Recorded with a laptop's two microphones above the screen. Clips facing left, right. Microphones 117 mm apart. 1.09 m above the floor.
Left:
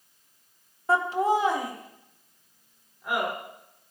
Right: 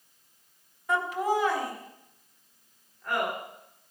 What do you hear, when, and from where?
0.9 s laughter: 35° left (ahead or behind), 1.0 m; by 3.3 s 10° left (ahead or behind), 3 m